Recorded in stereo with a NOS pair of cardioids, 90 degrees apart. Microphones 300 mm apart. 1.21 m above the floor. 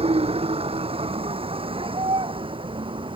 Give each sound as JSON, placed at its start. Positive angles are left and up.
{"t": 0.0, "sound": "a vehicle", "azimuth_deg": -20}